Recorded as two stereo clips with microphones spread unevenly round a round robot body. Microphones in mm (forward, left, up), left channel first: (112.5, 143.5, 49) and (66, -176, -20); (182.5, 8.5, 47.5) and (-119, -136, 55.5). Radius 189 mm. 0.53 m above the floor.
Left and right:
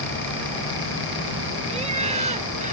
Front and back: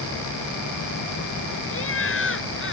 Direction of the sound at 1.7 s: 25° right.